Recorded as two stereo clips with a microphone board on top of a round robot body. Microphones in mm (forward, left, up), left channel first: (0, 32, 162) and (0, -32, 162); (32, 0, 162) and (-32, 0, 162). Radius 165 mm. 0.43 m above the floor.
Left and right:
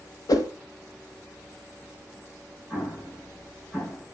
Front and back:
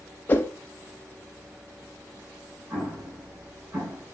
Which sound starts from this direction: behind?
An explosion, at 2.7 s.